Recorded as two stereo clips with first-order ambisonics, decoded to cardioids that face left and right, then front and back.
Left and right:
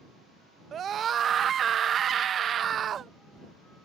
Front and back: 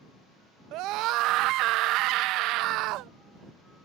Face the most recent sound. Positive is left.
turn(degrees=-150)